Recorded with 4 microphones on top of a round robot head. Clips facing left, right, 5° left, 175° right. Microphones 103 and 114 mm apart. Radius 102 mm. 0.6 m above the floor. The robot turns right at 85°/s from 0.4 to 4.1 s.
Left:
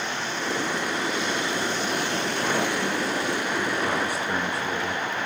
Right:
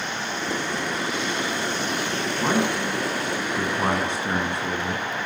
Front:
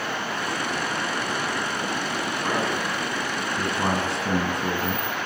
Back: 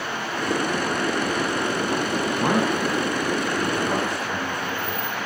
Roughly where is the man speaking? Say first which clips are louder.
Right 4 dB, back 5 dB; behind.